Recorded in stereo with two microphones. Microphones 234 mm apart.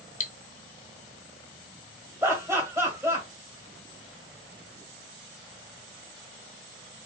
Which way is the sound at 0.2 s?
35° left (ahead or behind).